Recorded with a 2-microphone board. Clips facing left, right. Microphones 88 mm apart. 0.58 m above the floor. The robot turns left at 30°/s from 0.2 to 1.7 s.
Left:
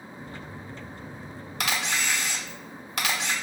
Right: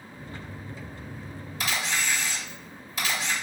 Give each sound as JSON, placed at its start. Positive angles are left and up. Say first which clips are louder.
{"t": 1.6, "sound": "a camera shutter", "louder": "left 1 dB", "side_deg": 70, "distance_m": 0.8}